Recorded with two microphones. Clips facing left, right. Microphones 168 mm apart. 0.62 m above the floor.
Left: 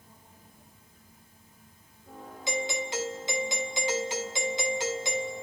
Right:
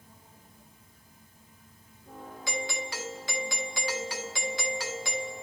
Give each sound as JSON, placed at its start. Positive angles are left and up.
{"t": 2.5, "sound": "a doorbell", "side_deg": 20, "distance_m": 1.5}